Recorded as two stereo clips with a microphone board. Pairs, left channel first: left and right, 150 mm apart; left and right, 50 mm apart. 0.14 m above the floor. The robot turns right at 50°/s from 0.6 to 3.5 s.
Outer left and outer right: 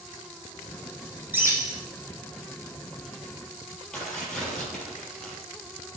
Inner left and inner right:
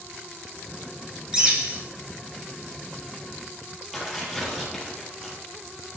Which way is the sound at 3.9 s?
5° left (ahead or behind).